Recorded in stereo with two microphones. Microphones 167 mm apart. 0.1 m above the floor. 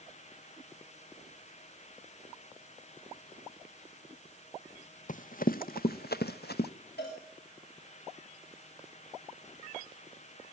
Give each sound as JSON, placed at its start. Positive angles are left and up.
{"t": 5.1, "sound": "running footsteps", "side_deg": 55, "distance_m": 1.3}
{"t": 7.0, "sound": "a cowbell", "side_deg": 85, "distance_m": 7.0}